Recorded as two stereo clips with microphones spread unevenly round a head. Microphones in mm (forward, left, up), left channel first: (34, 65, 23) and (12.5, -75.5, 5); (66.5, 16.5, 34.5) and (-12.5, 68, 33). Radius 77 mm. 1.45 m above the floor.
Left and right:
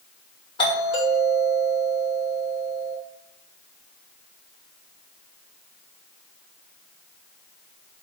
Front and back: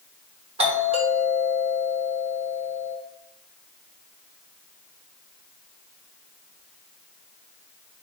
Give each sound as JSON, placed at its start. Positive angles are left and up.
{"t": 0.6, "sound": "a doorbell", "azimuth_deg": 145, "distance_m": 3.0}